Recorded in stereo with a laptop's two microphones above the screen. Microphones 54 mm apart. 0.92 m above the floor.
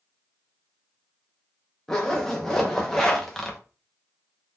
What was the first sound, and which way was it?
A zipper, 5° left (ahead or behind).